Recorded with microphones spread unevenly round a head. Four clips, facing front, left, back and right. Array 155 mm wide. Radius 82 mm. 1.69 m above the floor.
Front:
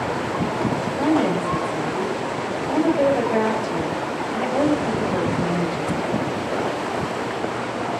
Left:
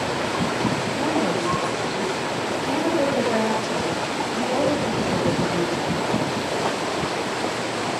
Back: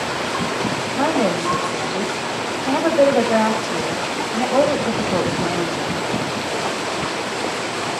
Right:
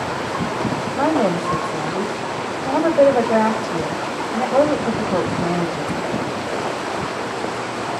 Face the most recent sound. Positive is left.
turn(degrees=-125)